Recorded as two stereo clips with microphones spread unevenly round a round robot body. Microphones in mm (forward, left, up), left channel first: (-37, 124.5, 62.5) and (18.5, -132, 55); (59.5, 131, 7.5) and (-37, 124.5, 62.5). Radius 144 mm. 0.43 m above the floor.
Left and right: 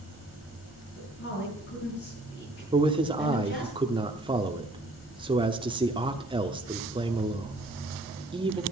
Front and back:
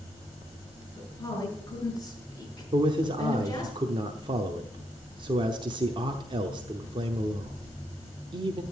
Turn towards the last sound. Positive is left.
turn(degrees=-120)